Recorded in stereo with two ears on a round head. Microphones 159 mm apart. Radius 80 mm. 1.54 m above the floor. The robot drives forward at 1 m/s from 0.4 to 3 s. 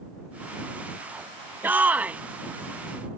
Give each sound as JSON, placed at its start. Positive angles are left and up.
{"t": 1.6, "sound": "a shout", "side_deg": -10}